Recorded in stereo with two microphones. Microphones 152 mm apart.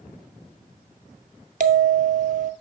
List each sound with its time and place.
1.6 s a bell: 60° right (ahead or behind), 0.7 m